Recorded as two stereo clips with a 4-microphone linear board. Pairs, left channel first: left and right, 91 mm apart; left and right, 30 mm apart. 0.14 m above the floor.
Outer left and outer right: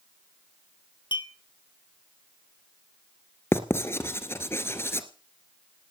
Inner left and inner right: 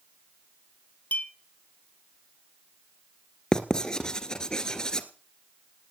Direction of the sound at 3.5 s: 30° left (ahead or behind).